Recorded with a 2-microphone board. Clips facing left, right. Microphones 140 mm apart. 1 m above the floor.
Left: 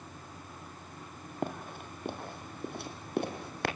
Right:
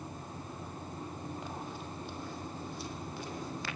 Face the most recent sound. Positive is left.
turn(degrees=75)  # may be behind; listen again after turning